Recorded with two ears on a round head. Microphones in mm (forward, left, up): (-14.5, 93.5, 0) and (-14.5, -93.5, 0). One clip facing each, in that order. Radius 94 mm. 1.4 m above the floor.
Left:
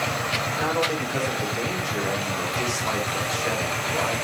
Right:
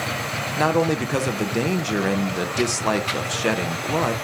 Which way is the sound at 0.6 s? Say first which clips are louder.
Right 7 dB; 60° right (ahead or behind).